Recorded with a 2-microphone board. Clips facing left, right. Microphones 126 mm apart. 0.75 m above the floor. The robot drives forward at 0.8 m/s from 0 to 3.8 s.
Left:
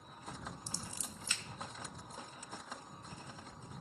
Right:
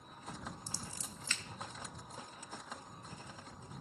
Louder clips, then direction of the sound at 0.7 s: Even; 25° left (ahead or behind).